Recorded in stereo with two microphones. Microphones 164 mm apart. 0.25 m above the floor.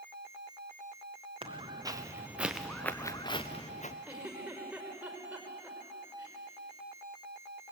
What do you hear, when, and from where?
1.4 s footsteps: 35° right (ahead or behind), 2 m; by 4.0 s 50° left (ahead or behind), 1.6 m
4.1 s a giggle: 5° right (ahead or behind), 5 m